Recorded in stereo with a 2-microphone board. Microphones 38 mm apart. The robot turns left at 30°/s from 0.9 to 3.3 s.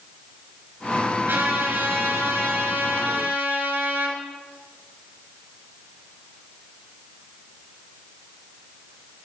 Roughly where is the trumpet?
Ahead right.